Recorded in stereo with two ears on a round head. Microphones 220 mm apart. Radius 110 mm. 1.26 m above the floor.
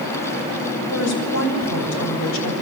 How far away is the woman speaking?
About 7 m.